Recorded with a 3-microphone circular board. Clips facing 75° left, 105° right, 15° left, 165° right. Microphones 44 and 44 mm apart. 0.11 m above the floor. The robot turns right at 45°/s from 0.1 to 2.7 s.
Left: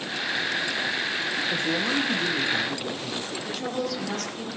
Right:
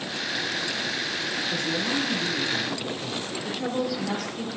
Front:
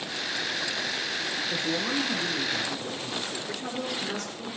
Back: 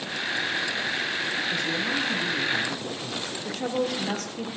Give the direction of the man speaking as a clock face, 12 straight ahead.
10 o'clock.